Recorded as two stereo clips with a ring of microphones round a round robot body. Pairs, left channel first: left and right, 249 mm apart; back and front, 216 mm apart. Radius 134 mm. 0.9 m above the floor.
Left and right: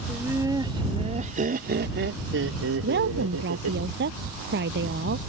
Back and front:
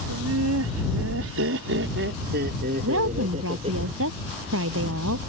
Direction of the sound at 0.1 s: 5° right.